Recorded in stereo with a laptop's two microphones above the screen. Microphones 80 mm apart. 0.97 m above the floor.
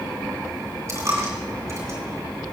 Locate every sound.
0.9 s a dropped coin: 40° right (ahead or behind), 2.5 m